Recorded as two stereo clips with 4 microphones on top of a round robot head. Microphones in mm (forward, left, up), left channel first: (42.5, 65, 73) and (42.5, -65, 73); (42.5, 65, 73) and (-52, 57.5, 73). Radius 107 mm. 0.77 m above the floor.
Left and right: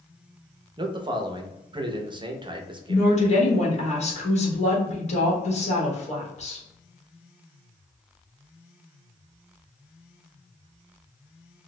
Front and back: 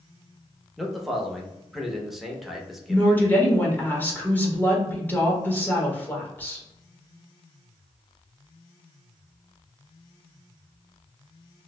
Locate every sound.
0.8 s a man speaking: 90° right, 0.6 m
2.9 s a woman speaking: 75° left, 1.3 m